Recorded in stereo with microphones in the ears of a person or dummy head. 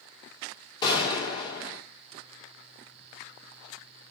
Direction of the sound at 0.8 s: 20° left (ahead or behind).